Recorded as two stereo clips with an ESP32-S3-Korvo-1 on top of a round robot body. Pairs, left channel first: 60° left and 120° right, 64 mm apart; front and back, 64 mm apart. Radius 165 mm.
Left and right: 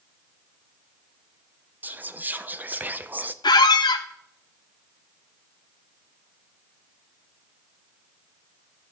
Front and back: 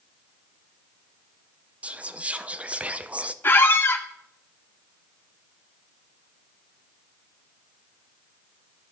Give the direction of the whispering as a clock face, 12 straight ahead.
5 o'clock.